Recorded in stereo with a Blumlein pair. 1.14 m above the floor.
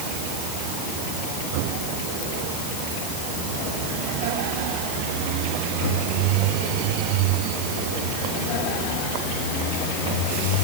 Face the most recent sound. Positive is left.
No sound to turn to.